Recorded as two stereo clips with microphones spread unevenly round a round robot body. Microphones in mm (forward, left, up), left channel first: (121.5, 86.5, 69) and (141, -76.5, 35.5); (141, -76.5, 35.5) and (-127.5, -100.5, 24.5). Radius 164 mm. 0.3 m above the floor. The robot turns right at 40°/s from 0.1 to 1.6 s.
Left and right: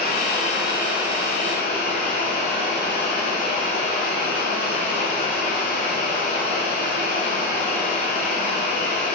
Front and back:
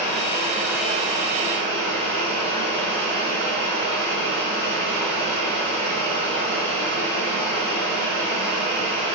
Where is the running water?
70° left, 3 m; by 9.2 s 130° left, 3 m.